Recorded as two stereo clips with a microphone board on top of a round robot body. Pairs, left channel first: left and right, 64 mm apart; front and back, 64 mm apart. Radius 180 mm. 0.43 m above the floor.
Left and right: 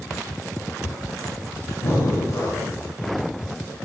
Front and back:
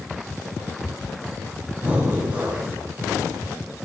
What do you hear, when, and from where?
1.8 s breathing: 120° left, 5 m